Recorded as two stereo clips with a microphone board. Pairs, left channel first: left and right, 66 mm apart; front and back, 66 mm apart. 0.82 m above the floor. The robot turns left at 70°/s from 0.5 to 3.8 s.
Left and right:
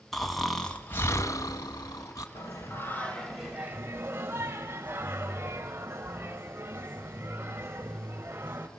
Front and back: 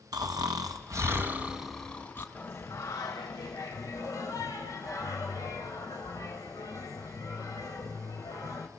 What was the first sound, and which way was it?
Snoring, 175° left.